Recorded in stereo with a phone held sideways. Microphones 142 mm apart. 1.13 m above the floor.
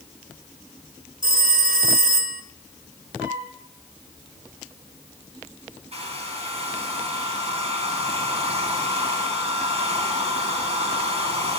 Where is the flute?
70° right (ahead or behind), 10 m.